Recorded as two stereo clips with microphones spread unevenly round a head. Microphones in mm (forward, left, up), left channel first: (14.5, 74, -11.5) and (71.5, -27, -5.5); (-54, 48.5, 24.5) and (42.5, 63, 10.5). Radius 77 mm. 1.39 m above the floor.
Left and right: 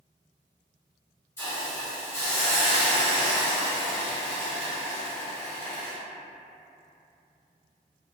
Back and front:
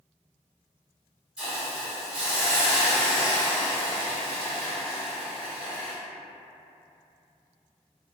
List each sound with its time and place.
1.4 s a hiss: 95° left, 1.0 m